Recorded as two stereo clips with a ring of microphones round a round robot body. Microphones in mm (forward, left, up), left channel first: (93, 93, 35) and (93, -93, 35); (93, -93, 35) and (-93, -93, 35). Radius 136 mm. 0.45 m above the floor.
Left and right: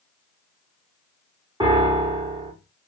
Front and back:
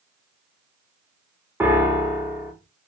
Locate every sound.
1.6 s a piano: 120° right, 1.1 m